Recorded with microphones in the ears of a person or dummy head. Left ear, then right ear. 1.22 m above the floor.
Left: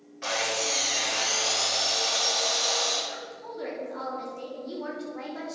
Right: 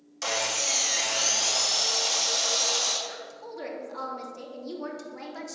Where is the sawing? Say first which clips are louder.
Even; 80° right, 2 m.